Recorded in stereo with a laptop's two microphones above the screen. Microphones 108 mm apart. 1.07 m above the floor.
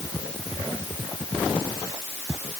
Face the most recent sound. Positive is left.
No sound to turn to.